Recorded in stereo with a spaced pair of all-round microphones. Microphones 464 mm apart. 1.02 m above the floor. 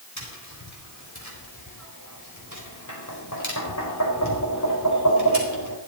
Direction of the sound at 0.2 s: 40° left (ahead or behind).